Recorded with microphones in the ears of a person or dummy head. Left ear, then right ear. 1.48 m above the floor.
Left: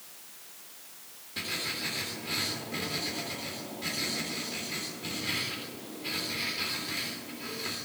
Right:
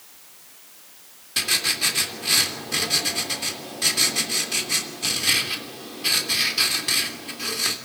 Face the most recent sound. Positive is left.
turn(degrees=-65)  # may be behind; listen again after turning